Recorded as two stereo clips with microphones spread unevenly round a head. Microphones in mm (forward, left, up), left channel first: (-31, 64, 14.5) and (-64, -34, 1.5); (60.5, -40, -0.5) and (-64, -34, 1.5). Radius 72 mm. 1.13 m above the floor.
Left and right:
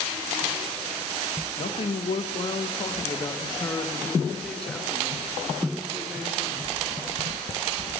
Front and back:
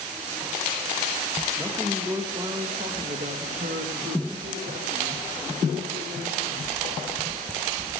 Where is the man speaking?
90° left, 1.3 m; by 6.7 s 170° left, 3 m.